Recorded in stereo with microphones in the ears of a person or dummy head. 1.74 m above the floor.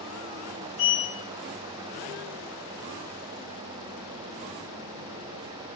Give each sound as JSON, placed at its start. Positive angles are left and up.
{"t": 0.8, "sound": "a sliding door", "side_deg": 35, "distance_m": 1.1}